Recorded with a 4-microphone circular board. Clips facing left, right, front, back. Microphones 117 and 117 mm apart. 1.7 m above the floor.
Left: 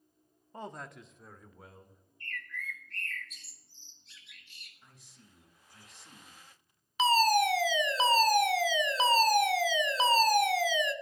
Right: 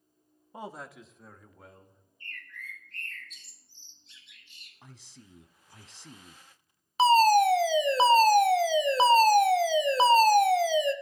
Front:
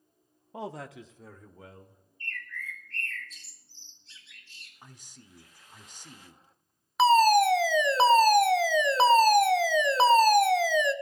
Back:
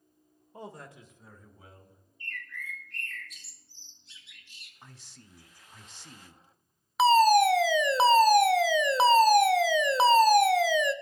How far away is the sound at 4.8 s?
About 0.8 m.